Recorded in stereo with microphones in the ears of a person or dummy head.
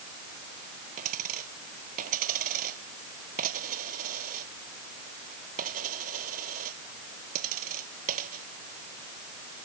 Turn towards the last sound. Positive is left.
turn(degrees=-50)  # may be behind; listen again after turning